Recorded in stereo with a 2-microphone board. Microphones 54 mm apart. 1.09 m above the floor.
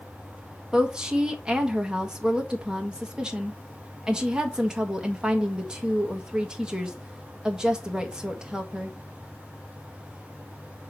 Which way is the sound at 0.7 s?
15° right (ahead or behind).